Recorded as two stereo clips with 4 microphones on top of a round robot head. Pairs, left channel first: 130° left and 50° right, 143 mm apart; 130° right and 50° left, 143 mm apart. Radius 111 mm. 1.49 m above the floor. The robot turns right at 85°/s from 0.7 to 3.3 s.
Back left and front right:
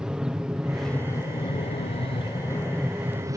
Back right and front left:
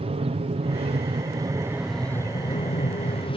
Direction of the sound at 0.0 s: 35° left.